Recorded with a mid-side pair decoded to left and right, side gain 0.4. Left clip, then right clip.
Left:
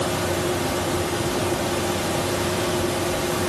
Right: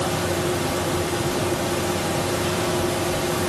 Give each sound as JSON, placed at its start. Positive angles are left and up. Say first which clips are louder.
{"t": 0.0, "sound": "a fan", "louder": "even", "azimuth_deg": 0, "distance_m": 0.8}